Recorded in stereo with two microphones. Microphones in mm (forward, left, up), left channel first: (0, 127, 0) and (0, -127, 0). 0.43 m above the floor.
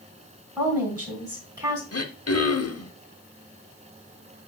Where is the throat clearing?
80° left, 0.8 m.